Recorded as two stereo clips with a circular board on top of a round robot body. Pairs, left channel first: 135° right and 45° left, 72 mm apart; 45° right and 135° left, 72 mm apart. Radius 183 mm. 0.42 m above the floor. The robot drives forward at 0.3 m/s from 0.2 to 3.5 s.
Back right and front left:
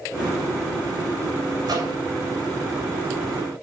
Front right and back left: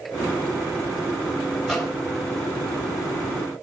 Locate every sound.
1.6 s a microwave: 45° left, 2.5 m